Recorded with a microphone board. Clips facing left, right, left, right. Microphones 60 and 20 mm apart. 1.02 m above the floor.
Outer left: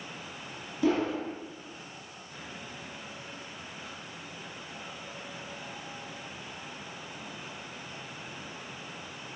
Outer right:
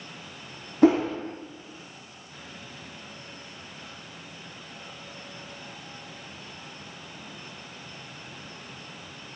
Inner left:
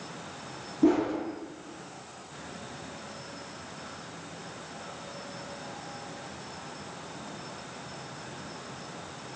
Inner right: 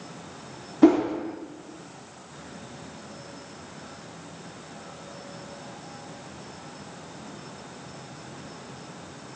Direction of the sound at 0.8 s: 65° right (ahead or behind).